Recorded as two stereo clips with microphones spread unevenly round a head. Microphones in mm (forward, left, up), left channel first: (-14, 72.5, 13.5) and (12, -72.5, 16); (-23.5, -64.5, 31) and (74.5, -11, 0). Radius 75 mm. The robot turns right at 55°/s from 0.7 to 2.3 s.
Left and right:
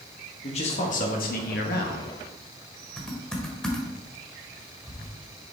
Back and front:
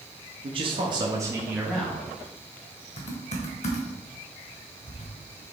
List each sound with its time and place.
0.4 s a man speaking: 55° left, 1.3 m; by 2.1 s 135° left, 1.3 m
3.0 s typing on a keyboard: 175° right, 1.2 m